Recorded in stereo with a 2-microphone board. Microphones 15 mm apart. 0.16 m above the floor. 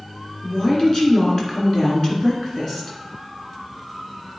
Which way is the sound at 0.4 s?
30° left (ahead or behind).